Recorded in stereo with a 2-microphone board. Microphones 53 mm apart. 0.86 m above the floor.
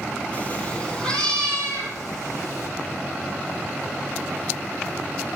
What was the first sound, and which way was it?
A cat meowing, 30° left (ahead or behind).